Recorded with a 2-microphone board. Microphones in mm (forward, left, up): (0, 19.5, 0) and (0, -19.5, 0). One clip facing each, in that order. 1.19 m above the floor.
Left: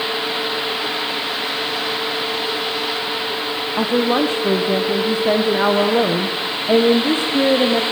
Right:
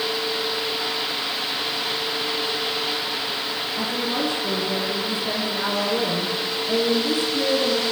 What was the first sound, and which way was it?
A woman speaking, 40° left (ahead or behind).